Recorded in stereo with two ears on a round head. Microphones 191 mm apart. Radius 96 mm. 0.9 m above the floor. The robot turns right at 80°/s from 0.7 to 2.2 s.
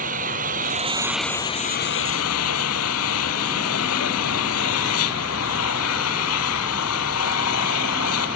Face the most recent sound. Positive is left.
turn(degrees=80)